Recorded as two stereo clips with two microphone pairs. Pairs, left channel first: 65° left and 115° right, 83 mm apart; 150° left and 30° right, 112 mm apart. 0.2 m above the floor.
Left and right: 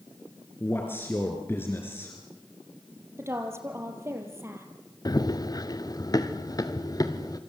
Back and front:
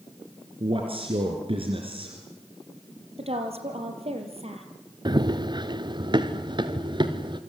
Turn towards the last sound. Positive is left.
turn(degrees=20)